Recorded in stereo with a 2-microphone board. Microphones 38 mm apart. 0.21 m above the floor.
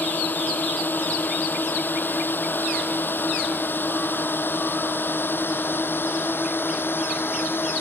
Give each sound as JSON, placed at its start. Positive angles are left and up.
{"t": 0.0, "sound": "a drone", "side_deg": 50}